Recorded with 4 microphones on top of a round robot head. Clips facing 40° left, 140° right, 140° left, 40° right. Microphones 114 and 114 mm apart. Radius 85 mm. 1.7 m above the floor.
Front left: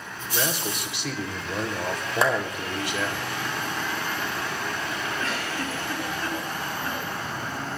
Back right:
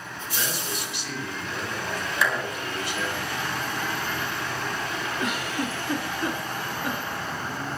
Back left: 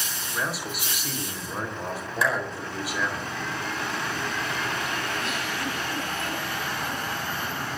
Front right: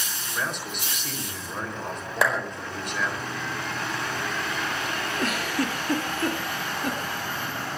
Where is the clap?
10° right, 5 m.